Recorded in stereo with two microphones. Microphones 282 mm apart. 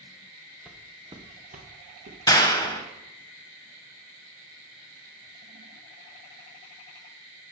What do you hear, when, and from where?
0.7 s footsteps: centre (ahead or behind), 1.4 m; by 3.3 s 50° right (ahead or behind), 3.5 m
2.3 s a clap: 15° left (ahead or behind), 0.9 m